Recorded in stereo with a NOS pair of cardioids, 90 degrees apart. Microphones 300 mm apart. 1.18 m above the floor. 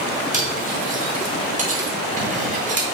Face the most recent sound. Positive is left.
turn(degrees=-25)